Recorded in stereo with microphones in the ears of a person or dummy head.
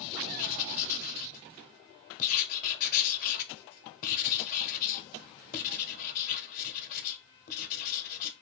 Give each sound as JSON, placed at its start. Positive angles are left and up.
{"t": 0.4, "sound": "writing", "side_deg": 45, "distance_m": 0.8}